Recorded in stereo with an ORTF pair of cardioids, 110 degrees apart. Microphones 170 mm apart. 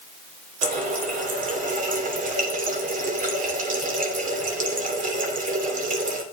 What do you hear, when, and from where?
0.6 s a running tap: 55° right, 3 m